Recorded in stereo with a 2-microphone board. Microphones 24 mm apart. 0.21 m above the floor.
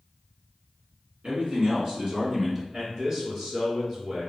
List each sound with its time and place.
1.2 s a man speaking: 55° right (ahead or behind), 2 m; by 2.6 s 20° right (ahead or behind), 1.8 m
2.7 s a man speaking: 40° right (ahead or behind), 2 m